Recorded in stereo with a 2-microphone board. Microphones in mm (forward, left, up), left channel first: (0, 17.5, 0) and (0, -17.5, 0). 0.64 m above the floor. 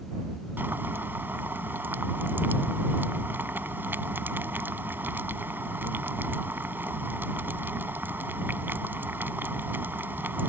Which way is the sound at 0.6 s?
80° right.